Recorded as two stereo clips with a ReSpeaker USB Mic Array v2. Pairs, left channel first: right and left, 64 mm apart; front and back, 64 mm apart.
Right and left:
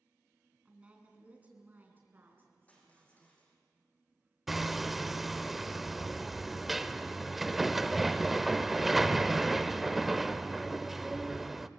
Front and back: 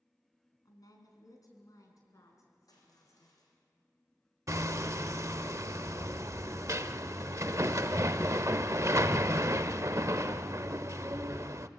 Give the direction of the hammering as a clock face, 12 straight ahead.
6 o'clock.